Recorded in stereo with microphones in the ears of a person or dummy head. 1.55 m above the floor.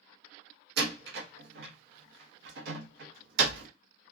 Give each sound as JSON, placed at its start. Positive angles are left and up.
{"t": 0.8, "sound": "a door slam", "side_deg": -65, "distance_m": 0.7}